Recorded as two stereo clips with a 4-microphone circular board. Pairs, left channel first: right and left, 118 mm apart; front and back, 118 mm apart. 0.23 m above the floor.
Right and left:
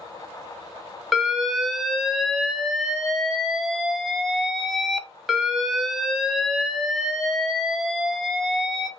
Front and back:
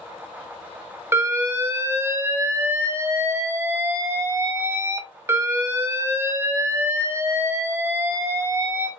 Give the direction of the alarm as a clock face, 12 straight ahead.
6 o'clock.